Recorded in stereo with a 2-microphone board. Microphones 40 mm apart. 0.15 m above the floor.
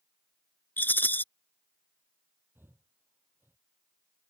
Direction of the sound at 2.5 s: 60° right (ahead or behind).